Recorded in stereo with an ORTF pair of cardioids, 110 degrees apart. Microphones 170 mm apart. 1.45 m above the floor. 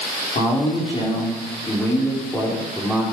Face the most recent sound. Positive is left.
turn(degrees=0)